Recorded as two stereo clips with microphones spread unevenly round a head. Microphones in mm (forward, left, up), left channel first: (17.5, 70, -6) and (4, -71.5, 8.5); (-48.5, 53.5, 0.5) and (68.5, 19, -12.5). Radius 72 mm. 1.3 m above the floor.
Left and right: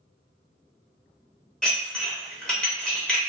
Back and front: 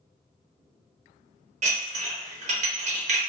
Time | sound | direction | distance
1.6 | dishes clattering | straight ahead | 0.8 m